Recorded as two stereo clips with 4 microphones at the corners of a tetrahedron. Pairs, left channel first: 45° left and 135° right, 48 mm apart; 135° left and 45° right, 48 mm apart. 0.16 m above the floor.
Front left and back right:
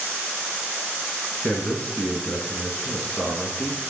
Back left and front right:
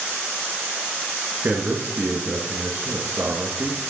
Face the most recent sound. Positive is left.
turn(degrees=-5)